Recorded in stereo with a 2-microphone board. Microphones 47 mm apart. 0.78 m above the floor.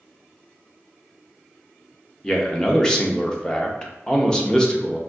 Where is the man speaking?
15° left (ahead or behind), 0.6 m.